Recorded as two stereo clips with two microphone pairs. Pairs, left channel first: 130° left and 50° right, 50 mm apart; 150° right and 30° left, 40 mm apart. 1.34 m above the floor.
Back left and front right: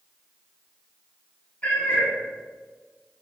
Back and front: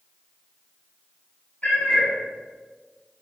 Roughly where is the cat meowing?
Behind.